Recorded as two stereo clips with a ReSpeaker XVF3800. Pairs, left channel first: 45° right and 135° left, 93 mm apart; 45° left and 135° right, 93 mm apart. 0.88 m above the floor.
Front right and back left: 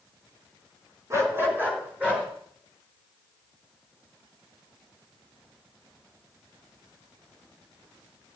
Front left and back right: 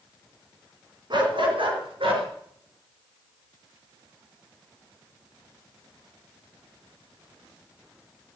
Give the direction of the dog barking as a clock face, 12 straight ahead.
6 o'clock.